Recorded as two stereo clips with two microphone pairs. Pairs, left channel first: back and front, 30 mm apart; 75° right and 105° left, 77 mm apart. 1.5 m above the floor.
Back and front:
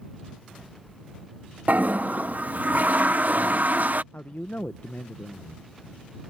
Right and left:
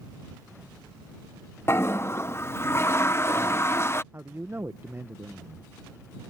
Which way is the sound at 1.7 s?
20° right.